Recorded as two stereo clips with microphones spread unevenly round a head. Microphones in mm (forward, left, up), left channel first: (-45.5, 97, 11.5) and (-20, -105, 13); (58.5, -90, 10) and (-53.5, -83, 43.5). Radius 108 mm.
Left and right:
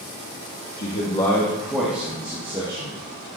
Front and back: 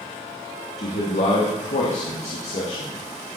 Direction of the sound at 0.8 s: 45° left.